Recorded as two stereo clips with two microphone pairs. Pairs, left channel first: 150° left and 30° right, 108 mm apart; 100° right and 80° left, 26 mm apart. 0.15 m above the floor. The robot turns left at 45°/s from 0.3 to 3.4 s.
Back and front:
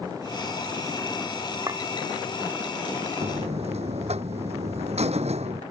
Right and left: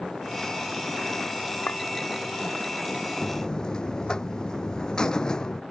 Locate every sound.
1.7 s a clink: 90° right; by 1.8 s 95° right
3.2 s a buzzer: 30° right; by 5.6 s 35° right